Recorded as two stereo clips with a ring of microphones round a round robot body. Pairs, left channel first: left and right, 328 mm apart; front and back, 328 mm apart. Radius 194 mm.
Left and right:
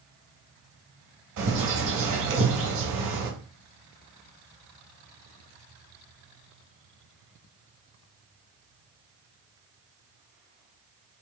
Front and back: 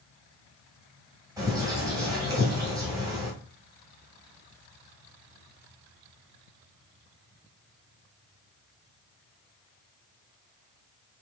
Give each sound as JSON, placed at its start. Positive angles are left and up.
{"t": 1.4, "sound": "a bird", "azimuth_deg": -100, "distance_m": 2.0}